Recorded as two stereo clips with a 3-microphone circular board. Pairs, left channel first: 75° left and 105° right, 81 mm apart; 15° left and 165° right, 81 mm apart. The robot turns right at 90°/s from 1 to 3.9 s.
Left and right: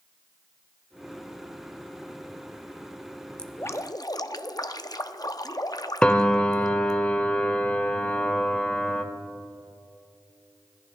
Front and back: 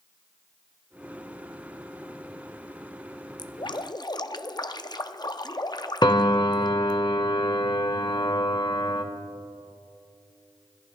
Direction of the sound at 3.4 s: 5° right.